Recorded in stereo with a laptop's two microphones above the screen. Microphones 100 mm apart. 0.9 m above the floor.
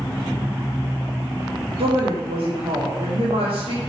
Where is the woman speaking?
75° right (ahead or behind), 2.0 m.